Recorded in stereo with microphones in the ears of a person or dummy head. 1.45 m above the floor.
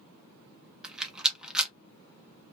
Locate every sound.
0.8 s a rattle: 5° right (ahead or behind), 0.6 m